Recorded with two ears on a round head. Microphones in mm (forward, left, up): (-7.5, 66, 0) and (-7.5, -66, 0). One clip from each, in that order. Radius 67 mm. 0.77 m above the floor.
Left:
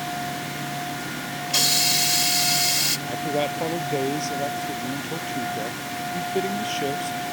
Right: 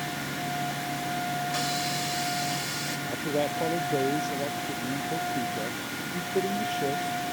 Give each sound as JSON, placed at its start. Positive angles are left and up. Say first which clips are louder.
{"t": 1.5, "sound": "a hiss", "louder": "left 8 dB", "side_deg": 65}
{"t": 3.1, "sound": "a man speaking", "louder": "left 3 dB", "side_deg": 40}